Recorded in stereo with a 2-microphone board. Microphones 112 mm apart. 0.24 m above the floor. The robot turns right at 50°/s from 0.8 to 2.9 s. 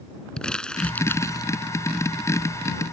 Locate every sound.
0.4 s crumpling: 10° left (ahead or behind); by 1.5 s 40° left (ahead or behind)